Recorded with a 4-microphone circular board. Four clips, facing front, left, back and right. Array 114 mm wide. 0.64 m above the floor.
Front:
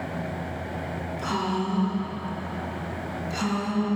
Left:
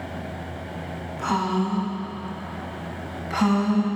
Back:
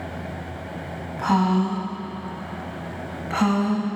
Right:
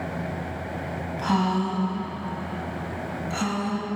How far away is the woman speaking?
About 4.5 m.